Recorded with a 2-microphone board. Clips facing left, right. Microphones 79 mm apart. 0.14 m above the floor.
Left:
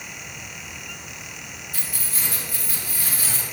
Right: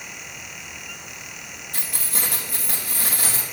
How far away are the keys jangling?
About 3 m.